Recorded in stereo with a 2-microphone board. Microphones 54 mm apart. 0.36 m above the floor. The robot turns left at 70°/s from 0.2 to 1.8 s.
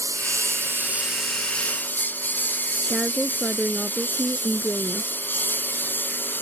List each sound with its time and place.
0.0 s a lawn mower: 80° right; by 6.4 s 35° left (ahead or behind)
2.9 s a woman speaking: centre (ahead or behind)